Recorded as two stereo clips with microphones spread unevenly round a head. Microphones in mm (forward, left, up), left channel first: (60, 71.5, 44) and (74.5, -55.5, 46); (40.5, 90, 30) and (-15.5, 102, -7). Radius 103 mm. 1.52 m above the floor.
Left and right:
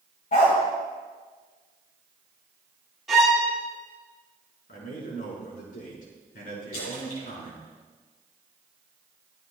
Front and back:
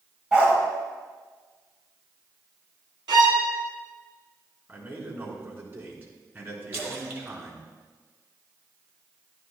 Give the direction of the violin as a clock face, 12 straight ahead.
6 o'clock.